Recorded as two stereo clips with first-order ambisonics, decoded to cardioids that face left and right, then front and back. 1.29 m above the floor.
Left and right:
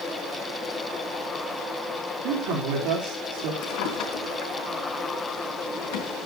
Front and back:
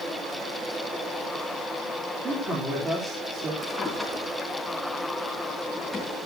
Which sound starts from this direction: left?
A drawer, at 3.6 s.